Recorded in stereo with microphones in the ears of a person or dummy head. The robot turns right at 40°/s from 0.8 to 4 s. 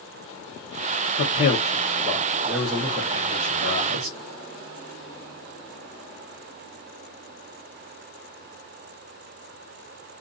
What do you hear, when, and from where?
1.2 s a man speaking: 130° left, 0.9 m; by 4.2 s 115° right, 0.9 m